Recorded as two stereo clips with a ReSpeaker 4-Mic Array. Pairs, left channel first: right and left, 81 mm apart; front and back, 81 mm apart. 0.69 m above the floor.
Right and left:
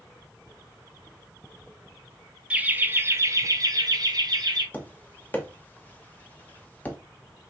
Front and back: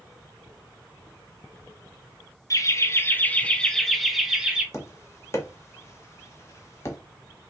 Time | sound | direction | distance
2.5 | laughter | 20° left | 0.9 m
4.7 | tapping | 30° right | 1.1 m